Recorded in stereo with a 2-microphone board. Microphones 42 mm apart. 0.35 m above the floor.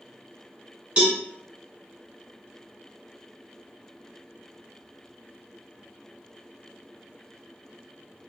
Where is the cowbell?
25° right (ahead or behind), 1.6 m.